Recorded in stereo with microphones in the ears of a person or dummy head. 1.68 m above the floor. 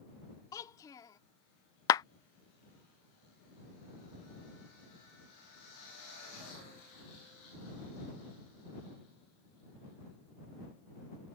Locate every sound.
0.5 s a child speaking: 25° left (ahead or behind)
1.9 s a clap: 25° left (ahead or behind)